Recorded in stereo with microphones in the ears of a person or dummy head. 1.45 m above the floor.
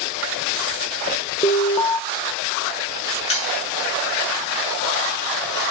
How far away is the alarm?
About 0.7 m.